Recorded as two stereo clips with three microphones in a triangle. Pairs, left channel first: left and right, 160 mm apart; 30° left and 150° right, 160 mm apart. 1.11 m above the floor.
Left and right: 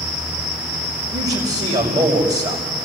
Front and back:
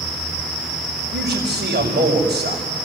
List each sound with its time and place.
1.1 s a man speaking: 135° right, 6 m